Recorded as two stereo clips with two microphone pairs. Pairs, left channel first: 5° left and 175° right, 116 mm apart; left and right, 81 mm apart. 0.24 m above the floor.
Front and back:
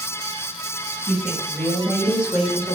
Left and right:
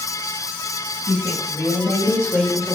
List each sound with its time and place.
1.1 s a woman speaking: 105° left, 2 m; by 2.8 s 170° left, 1.4 m